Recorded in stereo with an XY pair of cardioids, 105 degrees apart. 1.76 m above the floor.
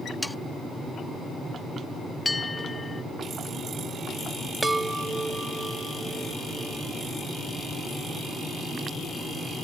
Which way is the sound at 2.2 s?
20° left.